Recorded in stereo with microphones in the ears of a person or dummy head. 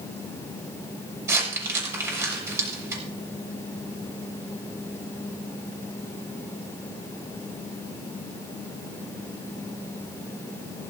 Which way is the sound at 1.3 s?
20° right (ahead or behind).